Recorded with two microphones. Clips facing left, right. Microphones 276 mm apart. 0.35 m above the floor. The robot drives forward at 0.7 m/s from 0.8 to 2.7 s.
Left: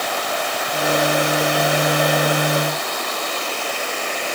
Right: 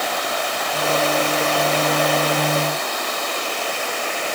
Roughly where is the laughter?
I don't hear laughter.